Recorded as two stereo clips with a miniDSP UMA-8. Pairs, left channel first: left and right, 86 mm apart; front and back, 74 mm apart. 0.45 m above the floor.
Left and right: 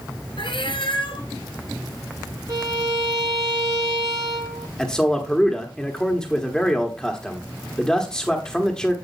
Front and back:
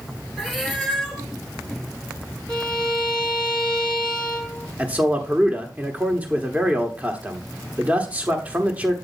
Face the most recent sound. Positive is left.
turn(degrees=160)